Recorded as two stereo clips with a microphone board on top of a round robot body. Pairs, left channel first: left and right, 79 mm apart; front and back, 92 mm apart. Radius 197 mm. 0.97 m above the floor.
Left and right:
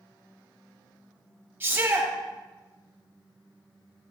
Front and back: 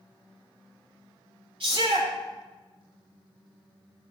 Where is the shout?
155° right, 9 m.